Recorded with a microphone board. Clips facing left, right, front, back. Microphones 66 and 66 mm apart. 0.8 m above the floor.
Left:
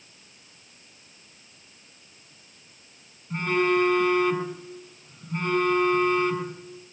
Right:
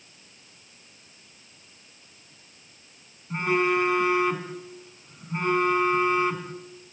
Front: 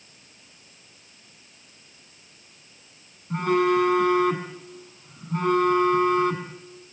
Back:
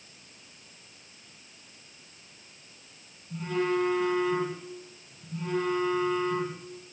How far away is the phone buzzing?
About 5 m.